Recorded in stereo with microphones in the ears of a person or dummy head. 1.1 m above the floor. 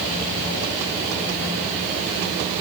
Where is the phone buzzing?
No phone buzzing in this recording.